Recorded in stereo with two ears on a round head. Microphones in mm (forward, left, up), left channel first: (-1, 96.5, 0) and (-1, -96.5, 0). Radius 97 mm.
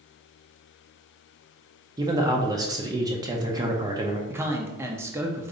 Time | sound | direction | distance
2.0 | a man speaking | 20° right (ahead or behind) | 0.6 m
4.3 | a man speaking | 10° right (ahead or behind) | 0.6 m